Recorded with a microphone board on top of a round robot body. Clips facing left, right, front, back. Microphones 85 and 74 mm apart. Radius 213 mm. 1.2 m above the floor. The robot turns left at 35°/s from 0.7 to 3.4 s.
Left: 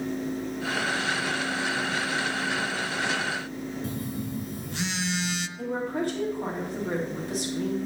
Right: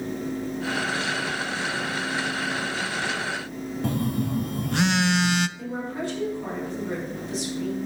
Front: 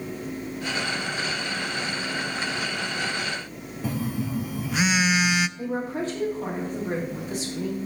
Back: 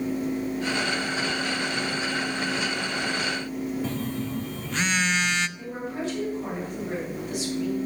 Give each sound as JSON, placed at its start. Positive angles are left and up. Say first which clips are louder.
{"t": 3.8, "sound": "a phone buzzing", "louder": "right 6 dB, front 1 dB", "azimuth_deg": -80, "distance_m": 0.6}
{"t": 5.6, "sound": "a woman speaking", "louder": "left 2 dB, front 3 dB", "azimuth_deg": 50, "distance_m": 3.0}